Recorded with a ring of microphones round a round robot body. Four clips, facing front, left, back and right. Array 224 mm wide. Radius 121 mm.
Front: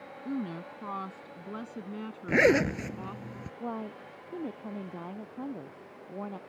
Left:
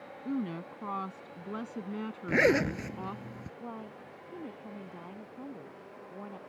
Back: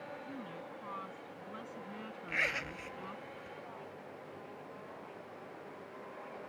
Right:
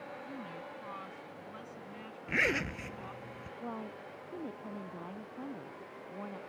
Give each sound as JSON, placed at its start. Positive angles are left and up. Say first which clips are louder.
{"t": 0.2, "sound": "a woman speaking", "louder": "left 9 dB, front 10 dB", "azimuth_deg": 50}
{"t": 2.3, "sound": "a zipper", "louder": "left 8 dB, front 17 dB", "azimuth_deg": 30}
{"t": 3.6, "sound": "a woman speaking", "louder": "right 3 dB, front 10 dB", "azimuth_deg": -5}